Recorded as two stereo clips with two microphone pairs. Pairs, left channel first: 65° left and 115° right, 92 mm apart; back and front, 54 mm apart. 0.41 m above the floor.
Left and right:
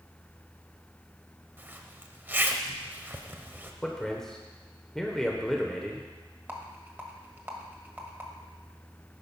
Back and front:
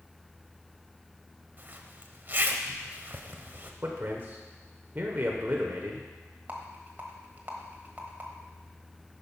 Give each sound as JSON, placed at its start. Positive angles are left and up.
{"t": 1.6, "sound": "a zipper", "azimuth_deg": -50, "distance_m": 0.8}
{"t": 3.8, "sound": "a man speaking", "azimuth_deg": -20, "distance_m": 1.0}
{"t": 6.5, "sound": "a rattle", "azimuth_deg": -50, "distance_m": 1.3}